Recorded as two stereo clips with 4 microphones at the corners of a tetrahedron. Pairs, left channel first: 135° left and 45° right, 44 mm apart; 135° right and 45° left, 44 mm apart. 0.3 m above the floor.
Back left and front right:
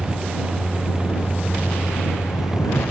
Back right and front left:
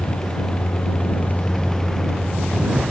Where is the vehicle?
140° right; by 2.9 s 115° left.